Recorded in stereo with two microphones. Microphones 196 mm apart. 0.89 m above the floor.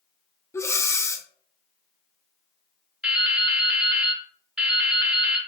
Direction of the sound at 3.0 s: 5° right (ahead or behind).